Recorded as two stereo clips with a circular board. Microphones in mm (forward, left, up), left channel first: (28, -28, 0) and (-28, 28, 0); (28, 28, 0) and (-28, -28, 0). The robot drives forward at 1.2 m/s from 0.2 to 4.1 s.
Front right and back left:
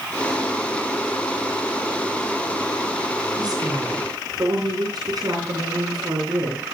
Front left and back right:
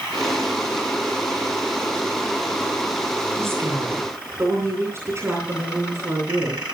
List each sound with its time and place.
3.4 s a woman speaking: 170° left, 9.5 m